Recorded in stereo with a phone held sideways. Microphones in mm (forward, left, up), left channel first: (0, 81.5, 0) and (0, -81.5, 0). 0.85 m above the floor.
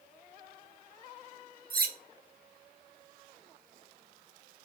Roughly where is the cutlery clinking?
Right.